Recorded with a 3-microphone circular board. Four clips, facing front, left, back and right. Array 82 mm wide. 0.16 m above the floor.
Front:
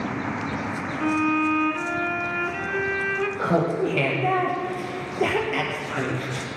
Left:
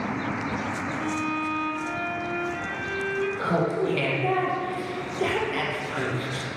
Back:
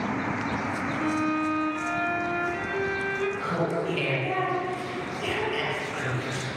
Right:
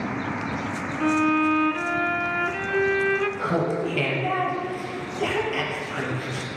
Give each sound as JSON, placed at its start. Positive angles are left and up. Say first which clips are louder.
{"t": 1.0, "sound": "a violin", "louder": "right 10 dB, front 5 dB", "azimuth_deg": -65, "distance_m": 0.8}
{"t": 3.4, "sound": "laughter", "louder": "even, front 5 dB", "azimuth_deg": 10, "distance_m": 4.0}